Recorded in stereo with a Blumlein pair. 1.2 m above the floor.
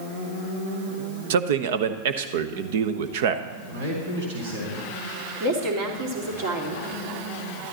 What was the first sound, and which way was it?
A man speaking, 55° right.